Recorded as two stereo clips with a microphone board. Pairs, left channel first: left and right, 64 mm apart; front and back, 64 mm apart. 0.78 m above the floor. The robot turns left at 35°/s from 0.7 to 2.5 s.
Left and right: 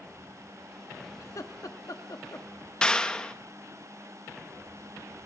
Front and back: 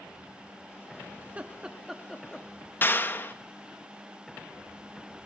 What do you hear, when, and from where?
1.2 s laughter: 120° left, 1.2 m; by 2.5 s 75° left, 1.2 m
2.8 s a clap: 20° left, 0.6 m